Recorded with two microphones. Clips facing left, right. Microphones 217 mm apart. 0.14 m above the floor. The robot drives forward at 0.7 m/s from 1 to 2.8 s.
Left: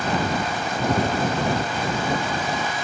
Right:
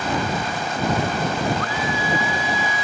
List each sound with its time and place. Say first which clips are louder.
1.6 s a scream: even; 80° right; by 2.8 s 75° right (ahead or behind)